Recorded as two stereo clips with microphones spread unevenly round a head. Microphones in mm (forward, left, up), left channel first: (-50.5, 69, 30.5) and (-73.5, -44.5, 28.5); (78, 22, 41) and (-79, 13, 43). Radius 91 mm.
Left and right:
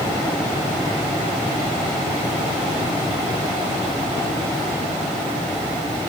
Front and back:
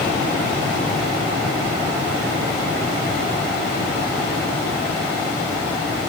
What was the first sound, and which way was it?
Only background noise.